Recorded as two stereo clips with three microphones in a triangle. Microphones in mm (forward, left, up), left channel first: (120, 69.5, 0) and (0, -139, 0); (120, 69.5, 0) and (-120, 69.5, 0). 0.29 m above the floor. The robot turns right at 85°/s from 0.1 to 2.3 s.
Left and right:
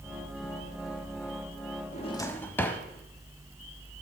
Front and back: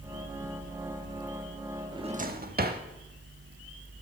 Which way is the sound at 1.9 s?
105° left.